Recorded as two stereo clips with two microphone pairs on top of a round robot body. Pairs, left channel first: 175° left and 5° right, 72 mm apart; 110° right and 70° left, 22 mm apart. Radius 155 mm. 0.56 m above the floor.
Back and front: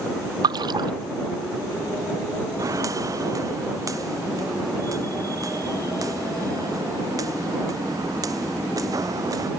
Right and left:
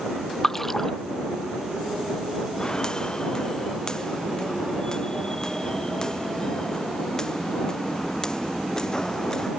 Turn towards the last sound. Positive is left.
turn(degrees=-45)